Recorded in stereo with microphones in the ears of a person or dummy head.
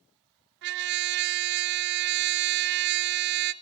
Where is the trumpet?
60° right (ahead or behind), 1.0 m.